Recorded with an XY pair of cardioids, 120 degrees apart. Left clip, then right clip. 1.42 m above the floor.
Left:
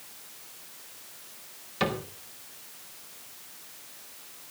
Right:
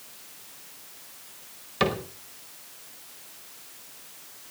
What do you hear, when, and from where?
1.8 s a cupboard door: 25° right, 4.5 m